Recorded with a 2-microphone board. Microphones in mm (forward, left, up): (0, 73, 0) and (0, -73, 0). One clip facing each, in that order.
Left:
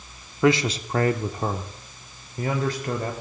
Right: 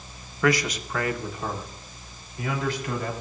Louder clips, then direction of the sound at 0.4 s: Left 3 dB; 25° left (ahead or behind).